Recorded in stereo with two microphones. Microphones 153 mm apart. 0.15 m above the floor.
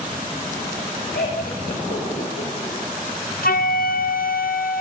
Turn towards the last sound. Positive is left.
turn(degrees=75)  # may be behind; listen again after turning